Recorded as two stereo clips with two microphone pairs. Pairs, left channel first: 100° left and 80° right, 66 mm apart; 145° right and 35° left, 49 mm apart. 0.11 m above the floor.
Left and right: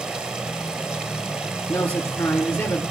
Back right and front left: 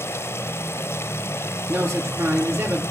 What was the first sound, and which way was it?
Running water, 150° right.